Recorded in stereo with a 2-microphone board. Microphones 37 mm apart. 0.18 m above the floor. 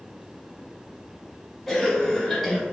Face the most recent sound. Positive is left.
turn(degrees=5)  # may be behind; listen again after turning